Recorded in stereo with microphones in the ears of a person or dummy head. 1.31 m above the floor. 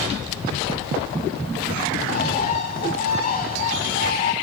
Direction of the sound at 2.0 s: 45° left (ahead or behind).